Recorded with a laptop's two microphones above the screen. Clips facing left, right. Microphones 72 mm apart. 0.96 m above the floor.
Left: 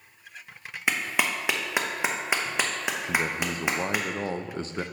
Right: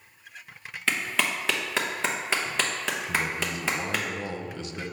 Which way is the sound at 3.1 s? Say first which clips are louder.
Left 3 dB; 35° left (ahead or behind).